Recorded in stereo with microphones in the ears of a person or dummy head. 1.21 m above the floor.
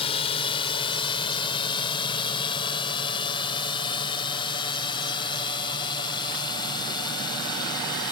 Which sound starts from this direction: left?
A drone, at 0.0 s.